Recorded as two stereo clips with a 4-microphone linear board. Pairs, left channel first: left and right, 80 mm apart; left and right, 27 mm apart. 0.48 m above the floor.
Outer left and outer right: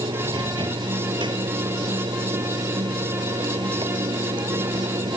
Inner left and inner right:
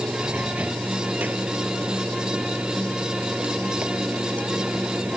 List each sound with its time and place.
0.0 s running water: 80° right